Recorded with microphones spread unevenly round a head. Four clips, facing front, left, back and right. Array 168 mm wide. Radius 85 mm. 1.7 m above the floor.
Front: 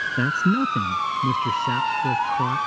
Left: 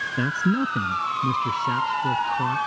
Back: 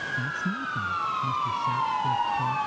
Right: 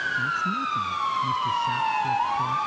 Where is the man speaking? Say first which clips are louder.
Left 7 dB, front 13 dB; 35° left; by 2.6 s 25° left.